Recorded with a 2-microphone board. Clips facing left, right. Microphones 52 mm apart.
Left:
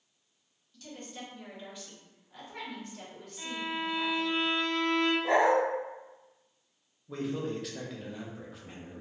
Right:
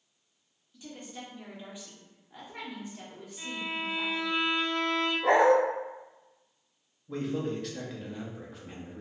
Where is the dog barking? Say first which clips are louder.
Right 5 dB; 70° right (ahead or behind), 0.5 m.